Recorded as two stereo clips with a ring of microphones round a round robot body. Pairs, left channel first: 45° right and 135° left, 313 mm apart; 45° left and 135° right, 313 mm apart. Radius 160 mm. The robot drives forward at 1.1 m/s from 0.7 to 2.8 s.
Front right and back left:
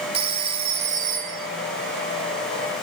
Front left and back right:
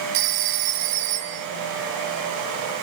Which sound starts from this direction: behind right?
A phone ringing, at 0.1 s.